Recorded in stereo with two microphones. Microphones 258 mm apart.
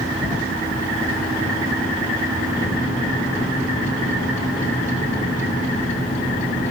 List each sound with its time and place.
2.5 s a microwave: 30° left (ahead or behind), 6.5 m